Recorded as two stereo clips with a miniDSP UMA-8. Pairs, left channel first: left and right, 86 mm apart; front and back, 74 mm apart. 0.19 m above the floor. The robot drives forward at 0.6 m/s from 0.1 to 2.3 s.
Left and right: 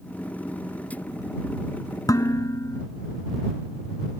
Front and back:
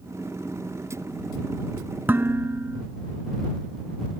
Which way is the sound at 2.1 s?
125° left.